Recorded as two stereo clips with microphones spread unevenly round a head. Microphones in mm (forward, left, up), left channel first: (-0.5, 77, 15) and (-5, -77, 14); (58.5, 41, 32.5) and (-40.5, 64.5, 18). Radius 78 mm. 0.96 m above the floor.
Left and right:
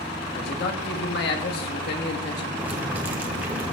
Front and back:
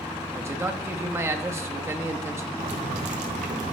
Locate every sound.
0.3 s a man speaking: 105° left, 1.3 m
2.6 s boiling: 170° right, 1.2 m